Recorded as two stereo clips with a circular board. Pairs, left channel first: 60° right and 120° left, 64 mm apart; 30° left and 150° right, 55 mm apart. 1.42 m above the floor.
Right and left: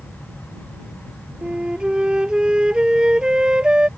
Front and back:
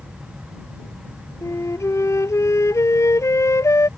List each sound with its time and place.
1.4 s a flute: 45° left